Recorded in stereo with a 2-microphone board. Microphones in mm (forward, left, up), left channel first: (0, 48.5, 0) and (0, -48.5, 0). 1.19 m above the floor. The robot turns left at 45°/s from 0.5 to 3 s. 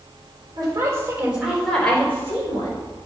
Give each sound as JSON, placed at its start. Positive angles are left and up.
{"t": 0.6, "sound": "a woman speaking", "azimuth_deg": -130, "distance_m": 4.0}